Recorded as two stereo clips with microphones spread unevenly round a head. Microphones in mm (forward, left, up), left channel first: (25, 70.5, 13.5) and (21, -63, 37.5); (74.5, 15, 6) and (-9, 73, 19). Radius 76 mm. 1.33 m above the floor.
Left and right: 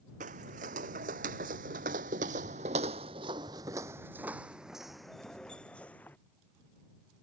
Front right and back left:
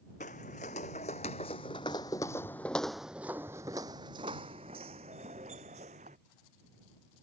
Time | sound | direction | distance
0.2 | footsteps | 70° right | ?